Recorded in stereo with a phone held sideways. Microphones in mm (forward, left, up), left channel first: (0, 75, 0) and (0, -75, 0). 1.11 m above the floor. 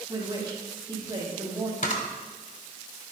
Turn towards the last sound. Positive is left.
turn(degrees=60)  # may be behind; listen again after turning